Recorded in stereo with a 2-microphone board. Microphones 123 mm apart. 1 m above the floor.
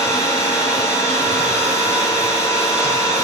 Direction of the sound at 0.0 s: 25° left (ahead or behind).